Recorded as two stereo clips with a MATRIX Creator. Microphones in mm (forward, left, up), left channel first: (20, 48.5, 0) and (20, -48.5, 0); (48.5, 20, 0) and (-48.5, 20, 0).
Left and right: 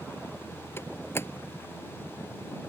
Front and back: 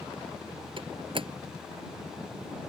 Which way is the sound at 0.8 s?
155° left.